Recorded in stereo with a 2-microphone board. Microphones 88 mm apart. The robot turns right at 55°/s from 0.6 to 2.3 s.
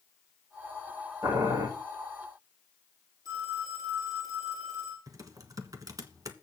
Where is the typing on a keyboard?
45° right (ahead or behind), 1.3 m.